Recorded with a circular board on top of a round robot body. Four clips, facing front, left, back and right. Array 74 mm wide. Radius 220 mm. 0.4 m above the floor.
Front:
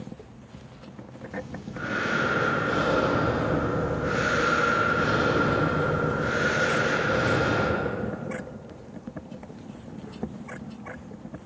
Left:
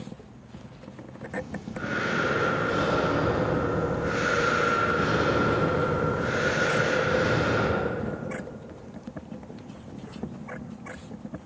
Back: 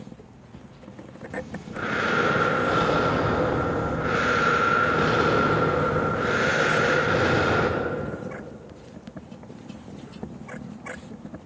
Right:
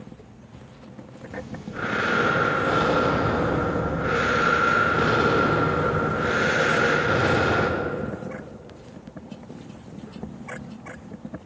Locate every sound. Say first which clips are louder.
1.3 s breathing: even, back 3 dB; 125° right, 1.0 m